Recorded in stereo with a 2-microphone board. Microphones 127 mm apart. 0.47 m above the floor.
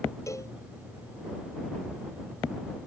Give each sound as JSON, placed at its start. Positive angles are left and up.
{"t": 0.3, "sound": "a cowbell", "side_deg": 25}